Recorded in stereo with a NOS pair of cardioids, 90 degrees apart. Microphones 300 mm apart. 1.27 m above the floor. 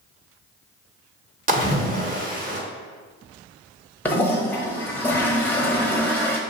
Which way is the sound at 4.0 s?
5° left.